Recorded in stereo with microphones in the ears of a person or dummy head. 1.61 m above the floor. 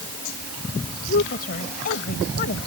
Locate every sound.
1.1 s a woman speaking: 50° left (ahead or behind)